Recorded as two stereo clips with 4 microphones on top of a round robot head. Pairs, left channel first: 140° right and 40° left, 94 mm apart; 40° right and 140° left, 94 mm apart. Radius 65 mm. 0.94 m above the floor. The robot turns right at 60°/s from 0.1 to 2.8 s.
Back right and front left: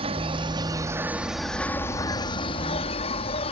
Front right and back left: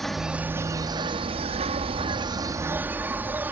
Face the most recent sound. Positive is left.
turn(degrees=-150)